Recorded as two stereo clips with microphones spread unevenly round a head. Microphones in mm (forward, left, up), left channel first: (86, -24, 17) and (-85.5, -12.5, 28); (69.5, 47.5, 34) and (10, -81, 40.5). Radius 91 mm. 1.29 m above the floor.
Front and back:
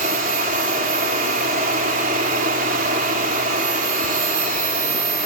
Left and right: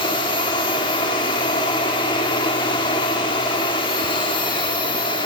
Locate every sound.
0.0 s a machine running: 130° left, 3.5 m